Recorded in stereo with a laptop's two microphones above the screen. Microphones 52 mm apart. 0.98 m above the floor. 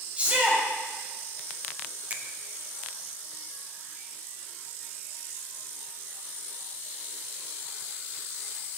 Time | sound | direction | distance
0.2 | a shout | 30° right (ahead or behind) | 4 m
2.1 | a finger snap | 30° right (ahead or behind) | 1.1 m